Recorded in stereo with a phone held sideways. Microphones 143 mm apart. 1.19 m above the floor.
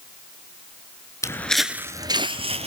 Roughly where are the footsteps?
Left.